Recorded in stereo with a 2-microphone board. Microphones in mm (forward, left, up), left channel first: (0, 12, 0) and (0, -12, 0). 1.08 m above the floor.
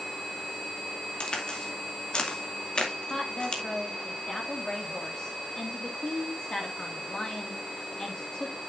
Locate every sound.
1.2 s a crack: 45° left (ahead or behind), 2 m
3.1 s a woman speaking: 35° left (ahead or behind), 2 m